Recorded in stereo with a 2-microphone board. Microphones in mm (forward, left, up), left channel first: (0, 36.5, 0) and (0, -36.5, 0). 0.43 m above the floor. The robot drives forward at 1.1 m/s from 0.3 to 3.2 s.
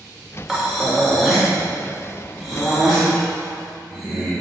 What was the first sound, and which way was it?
Breathing, centre (ahead or behind).